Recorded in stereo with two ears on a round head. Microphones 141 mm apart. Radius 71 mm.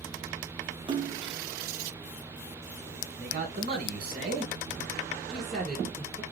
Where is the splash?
30° right (ahead or behind), 0.5 m.